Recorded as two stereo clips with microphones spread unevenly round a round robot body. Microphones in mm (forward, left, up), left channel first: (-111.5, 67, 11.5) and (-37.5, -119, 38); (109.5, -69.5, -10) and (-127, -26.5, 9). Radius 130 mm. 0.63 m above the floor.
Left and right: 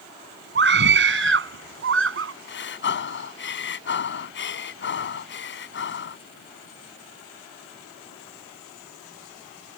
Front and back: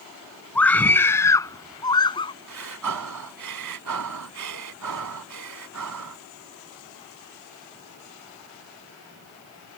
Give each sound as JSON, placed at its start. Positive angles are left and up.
{"t": 0.6, "sound": "a scream", "azimuth_deg": -95}
{"t": 2.5, "sound": "breathing", "azimuth_deg": 140}